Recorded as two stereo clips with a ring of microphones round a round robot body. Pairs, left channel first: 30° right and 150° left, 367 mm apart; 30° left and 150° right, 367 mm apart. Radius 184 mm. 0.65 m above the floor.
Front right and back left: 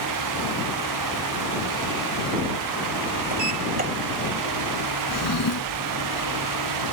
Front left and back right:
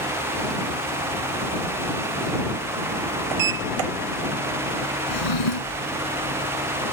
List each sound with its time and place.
3.3 s a sliding door: 145° right
5.1 s a drawer: 20° left